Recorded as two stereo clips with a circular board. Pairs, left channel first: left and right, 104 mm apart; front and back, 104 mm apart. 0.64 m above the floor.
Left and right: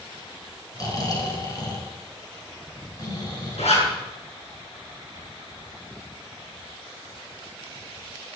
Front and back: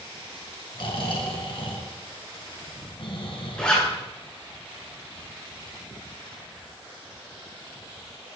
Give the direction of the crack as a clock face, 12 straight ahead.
No crack in this recording.